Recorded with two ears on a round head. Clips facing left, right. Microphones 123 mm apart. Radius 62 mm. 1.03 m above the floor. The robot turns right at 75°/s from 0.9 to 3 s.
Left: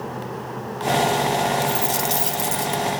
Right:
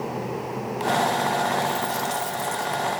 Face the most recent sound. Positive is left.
turn(degrees=140)